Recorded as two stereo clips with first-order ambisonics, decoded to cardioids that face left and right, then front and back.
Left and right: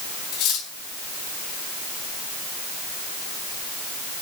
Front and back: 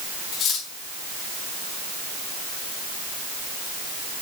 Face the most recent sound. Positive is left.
turn(degrees=60)